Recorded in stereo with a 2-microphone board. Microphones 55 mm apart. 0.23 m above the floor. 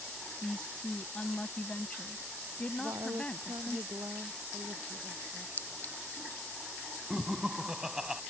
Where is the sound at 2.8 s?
75° right (ahead or behind).